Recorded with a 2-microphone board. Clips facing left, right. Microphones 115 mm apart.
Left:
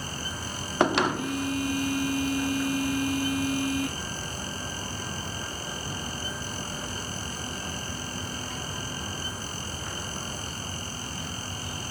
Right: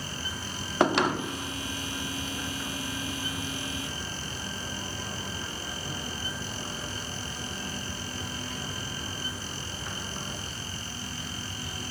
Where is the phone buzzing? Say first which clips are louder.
Left 6 dB; 55° left (ahead or behind).